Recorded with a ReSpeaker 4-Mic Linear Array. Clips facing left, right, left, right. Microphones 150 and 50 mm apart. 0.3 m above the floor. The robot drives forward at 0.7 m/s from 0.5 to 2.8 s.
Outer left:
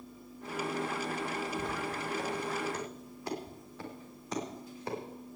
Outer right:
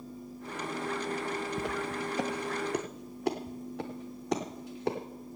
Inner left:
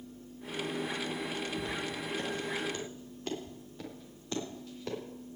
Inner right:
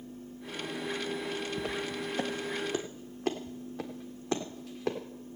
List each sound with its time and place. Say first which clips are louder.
1.6 s footsteps: outer right 2 dB, inner right 2 dB; 75° right (ahead or behind), 1.8 m; by 5.0 s 70° right (ahead or behind), 3.5 m